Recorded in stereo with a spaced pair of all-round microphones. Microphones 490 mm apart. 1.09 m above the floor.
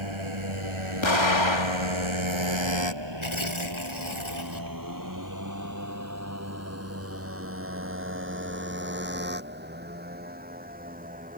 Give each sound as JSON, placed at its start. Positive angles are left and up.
{"t": 0.0, "sound": "a motorcycle", "side_deg": -75}
{"t": 1.0, "sound": "an explosion", "side_deg": 65}
{"t": 3.2, "sound": "tearing paper", "side_deg": 75}